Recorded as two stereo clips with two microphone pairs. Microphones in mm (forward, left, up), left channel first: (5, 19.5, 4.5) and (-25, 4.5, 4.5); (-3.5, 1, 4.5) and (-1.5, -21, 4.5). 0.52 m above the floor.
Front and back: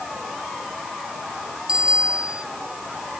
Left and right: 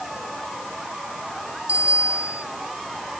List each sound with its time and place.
1.7 s a bicycle bell: 85° right